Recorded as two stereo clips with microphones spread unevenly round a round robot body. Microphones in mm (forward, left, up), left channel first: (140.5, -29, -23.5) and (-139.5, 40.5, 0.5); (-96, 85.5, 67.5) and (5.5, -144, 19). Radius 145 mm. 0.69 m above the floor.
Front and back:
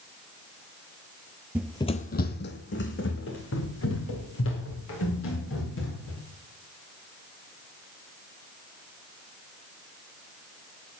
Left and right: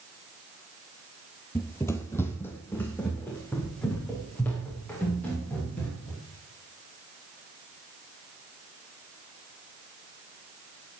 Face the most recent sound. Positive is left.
turn(degrees=30)